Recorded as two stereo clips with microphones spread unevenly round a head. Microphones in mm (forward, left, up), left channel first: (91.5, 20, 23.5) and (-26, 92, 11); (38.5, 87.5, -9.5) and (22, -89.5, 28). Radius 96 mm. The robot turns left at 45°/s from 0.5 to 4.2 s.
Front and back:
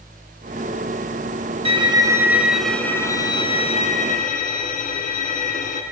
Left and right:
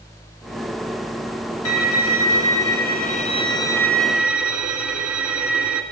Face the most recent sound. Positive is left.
turn(degrees=-15)